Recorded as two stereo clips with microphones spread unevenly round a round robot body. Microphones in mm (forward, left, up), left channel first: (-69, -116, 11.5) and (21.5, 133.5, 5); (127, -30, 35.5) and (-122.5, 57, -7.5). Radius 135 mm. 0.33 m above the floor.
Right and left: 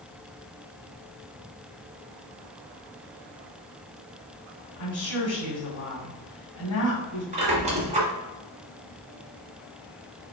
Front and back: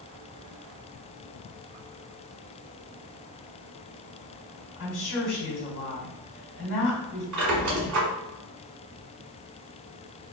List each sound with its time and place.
4.8 s a woman speaking: 80° right, 1.9 m
7.3 s a squeak: 135° left, 1.5 m